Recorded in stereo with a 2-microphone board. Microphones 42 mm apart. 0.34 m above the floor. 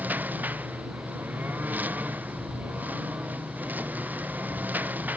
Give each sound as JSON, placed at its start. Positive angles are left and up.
{"t": 0.0, "sound": "a lawn mower", "side_deg": -40}